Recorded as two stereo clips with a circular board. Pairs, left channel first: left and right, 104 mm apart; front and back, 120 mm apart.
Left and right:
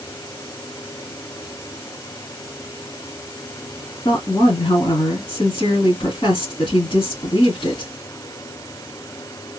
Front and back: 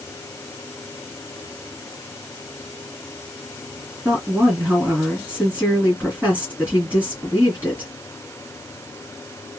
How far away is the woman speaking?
About 2.5 m.